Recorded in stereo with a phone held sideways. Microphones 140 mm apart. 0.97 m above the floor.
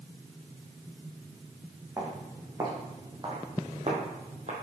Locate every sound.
2.0 s footsteps: 20° right (ahead or behind), 3 m; by 4.5 s 60° right (ahead or behind), 2 m